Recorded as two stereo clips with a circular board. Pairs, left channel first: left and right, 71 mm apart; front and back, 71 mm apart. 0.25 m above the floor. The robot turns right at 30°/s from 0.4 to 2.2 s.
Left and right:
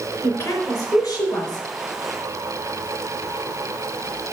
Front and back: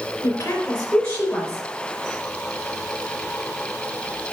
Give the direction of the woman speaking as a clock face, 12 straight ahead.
11 o'clock.